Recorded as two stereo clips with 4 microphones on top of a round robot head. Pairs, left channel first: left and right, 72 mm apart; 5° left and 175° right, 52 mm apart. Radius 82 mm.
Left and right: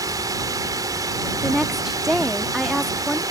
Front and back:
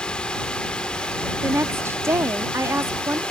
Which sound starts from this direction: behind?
A woman speaking, at 1.4 s.